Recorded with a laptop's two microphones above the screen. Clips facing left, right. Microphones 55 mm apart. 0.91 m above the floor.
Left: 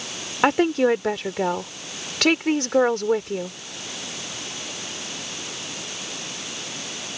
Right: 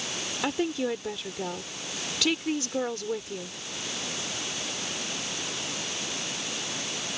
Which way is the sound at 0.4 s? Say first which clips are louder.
Left 10 dB; 60° left (ahead or behind).